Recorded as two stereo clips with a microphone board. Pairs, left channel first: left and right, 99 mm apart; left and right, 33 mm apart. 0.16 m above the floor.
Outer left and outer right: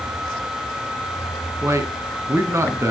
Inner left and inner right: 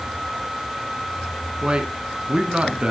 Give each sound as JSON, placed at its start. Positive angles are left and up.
{"t": 1.6, "sound": "a man speaking", "side_deg": -30, "distance_m": 1.4}